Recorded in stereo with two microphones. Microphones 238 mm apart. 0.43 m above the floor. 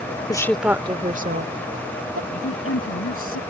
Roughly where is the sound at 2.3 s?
Left.